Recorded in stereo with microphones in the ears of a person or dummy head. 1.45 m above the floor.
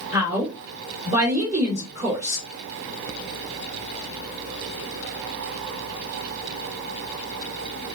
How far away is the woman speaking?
About 2.5 m.